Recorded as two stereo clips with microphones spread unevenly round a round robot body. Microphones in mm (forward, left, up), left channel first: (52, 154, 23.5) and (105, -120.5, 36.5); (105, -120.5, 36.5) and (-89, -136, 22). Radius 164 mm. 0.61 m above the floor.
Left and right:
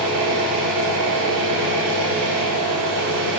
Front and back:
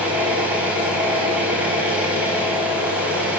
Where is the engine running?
95° right, 6 m.